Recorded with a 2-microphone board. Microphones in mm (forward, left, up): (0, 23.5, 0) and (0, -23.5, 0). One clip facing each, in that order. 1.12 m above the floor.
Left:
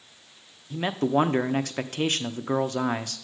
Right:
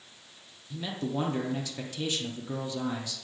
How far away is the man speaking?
About 0.5 m.